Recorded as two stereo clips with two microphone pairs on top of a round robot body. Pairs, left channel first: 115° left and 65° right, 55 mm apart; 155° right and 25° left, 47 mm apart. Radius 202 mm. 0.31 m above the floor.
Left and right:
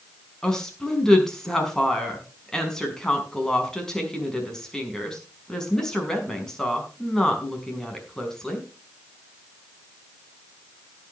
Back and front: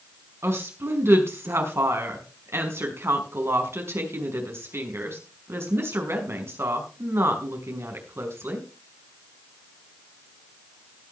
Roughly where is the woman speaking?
Ahead left.